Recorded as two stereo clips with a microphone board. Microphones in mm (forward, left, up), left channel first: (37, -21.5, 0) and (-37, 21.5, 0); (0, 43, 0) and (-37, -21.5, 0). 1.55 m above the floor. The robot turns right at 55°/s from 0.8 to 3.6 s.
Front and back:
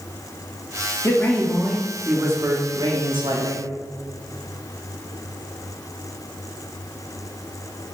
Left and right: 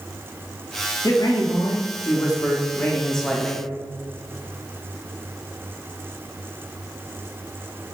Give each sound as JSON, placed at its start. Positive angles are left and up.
{"t": 1.0, "sound": "a man speaking", "azimuth_deg": 25, "distance_m": 0.7}